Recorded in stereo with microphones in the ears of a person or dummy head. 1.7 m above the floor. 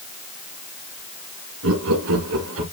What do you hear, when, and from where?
1.6 s laughter: 80° right, 2.5 m; by 2.6 s 70° right (ahead or behind), 3.5 m